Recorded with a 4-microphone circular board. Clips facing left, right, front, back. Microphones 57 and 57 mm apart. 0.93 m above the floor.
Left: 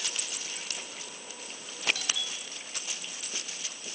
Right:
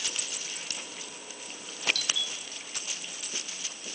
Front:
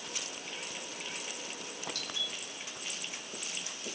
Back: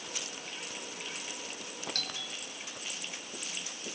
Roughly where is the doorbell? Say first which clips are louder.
Right 1 dB, front 1 dB; behind.